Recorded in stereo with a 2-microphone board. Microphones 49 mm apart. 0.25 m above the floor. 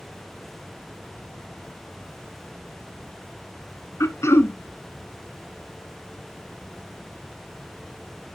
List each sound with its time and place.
4.0 s throat clearing: 75° left (ahead or behind), 0.8 m